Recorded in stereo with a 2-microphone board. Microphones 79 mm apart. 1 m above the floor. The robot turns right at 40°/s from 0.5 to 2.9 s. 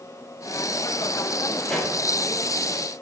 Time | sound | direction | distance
1.7 | a pop | 5° left (ahead or behind) | 0.5 m